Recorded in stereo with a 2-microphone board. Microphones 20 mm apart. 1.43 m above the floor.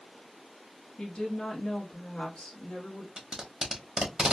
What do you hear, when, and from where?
1.0 s a woman speaking: 70° left (ahead or behind), 1.0 m
3.2 s tape being pulled: 30° right (ahead or behind), 1.2 m